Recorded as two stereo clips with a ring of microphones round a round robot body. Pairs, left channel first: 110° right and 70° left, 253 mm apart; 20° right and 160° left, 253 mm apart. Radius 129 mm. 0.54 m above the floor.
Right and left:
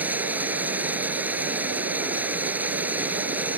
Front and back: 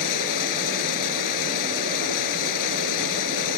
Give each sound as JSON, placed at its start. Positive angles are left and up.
{"t": 0.0, "sound": "running water", "azimuth_deg": -15}